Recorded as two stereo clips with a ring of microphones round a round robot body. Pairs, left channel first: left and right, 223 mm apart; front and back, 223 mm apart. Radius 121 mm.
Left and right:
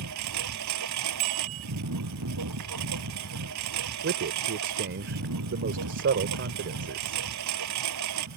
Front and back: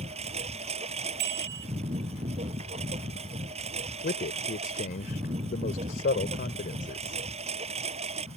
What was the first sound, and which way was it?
A lawn mower, 115° right.